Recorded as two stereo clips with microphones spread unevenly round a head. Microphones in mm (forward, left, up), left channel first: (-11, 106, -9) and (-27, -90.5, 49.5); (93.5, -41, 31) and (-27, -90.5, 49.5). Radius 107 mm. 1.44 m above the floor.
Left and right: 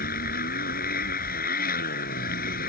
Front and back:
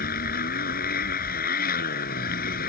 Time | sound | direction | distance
0.0 | a motorcycle | 35° left | ?